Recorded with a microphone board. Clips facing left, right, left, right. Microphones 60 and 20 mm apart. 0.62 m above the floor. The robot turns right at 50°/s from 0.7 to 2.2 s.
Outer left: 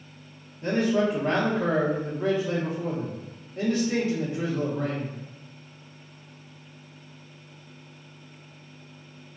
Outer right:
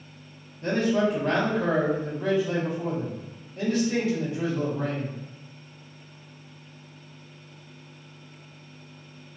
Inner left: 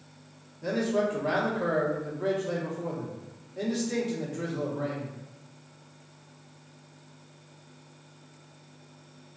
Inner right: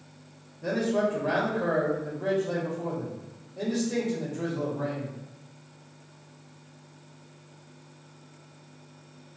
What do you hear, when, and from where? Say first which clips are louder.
0.6 s a man speaking: even, inner right 1 dB; 25° left, 1.3 m; by 5.1 s 100° left, 1.3 m